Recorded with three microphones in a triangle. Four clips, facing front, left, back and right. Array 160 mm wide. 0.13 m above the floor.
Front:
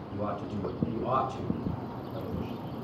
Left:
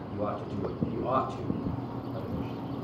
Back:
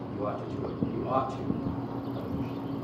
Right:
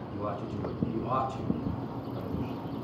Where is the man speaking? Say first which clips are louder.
Left 2 dB, even; 75° left, 3 m.